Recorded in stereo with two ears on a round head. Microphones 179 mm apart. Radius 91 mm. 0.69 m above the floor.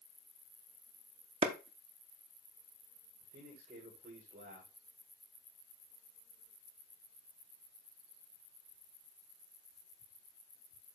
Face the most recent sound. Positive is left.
turn(degrees=-40)  # may be behind; listen again after turning